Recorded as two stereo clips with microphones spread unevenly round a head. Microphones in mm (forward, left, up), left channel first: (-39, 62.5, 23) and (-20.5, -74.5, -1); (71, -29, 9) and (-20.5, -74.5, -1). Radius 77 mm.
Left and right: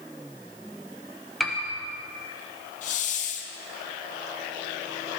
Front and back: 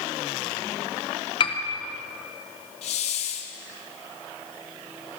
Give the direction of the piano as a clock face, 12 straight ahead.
11 o'clock.